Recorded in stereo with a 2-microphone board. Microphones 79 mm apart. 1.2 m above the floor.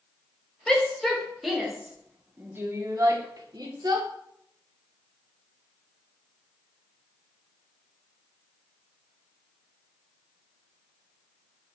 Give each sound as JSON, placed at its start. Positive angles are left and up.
{"t": 0.7, "sound": "a shout", "side_deg": 10, "distance_m": 2.0}